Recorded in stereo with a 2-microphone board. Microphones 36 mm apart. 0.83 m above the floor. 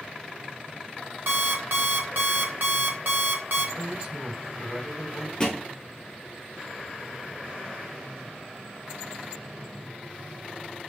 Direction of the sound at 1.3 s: 65° right (ahead or behind).